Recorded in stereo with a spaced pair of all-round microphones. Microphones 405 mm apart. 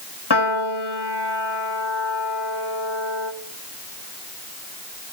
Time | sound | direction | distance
0.3 | a piano | 75° left (ahead or behind) | 1.6 m